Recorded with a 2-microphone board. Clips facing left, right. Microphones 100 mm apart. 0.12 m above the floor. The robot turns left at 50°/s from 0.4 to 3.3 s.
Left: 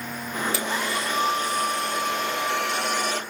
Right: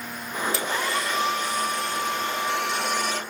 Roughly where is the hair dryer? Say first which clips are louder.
Even; behind.